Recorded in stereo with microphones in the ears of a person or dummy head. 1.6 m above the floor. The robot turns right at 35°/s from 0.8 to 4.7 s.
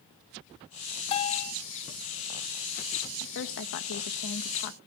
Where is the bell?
25° left (ahead or behind), 1.7 m; by 1.5 s 40° left (ahead or behind), 1.7 m.